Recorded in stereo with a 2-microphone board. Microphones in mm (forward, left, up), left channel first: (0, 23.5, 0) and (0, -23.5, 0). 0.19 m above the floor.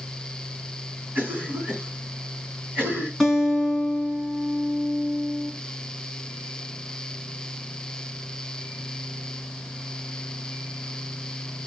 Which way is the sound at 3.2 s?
Centre (ahead or behind).